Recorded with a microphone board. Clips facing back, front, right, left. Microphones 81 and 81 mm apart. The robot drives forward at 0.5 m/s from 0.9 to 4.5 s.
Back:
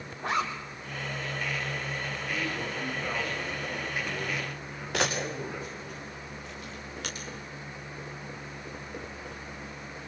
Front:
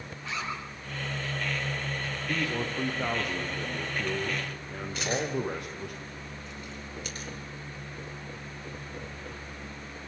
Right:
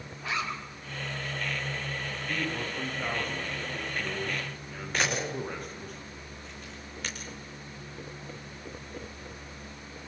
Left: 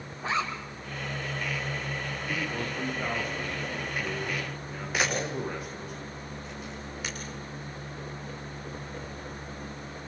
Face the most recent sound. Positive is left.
turn(degrees=175)